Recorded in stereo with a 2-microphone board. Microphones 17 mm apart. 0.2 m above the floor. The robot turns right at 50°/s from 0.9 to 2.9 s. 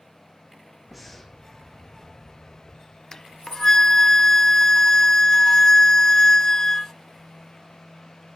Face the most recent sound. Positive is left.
turn(degrees=30)  # may be behind; listen again after turning